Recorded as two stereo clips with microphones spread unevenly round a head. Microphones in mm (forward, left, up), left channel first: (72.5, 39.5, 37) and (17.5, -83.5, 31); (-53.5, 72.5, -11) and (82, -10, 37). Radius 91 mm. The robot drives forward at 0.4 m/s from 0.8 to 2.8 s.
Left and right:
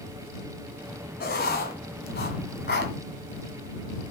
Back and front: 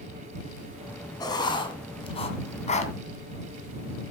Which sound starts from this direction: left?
Writing, at 1.2 s.